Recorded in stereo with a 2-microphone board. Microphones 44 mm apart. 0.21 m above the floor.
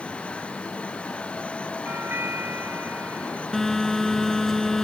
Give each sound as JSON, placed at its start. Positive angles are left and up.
{"t": 1.9, "sound": "a doorbell", "side_deg": -60}
{"t": 3.5, "sound": "a phone buzzing", "side_deg": 10}